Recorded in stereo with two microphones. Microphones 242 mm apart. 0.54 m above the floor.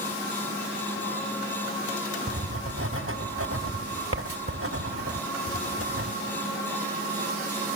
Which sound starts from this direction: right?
Writing, at 2.3 s.